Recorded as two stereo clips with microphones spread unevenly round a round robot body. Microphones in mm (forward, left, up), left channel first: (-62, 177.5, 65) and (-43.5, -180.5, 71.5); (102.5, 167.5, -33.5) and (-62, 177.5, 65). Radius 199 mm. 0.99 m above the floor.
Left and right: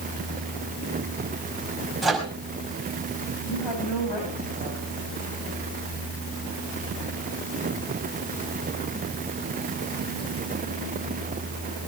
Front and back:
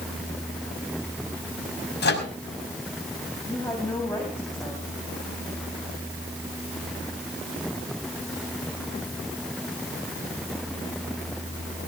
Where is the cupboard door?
No cupboard door in this recording.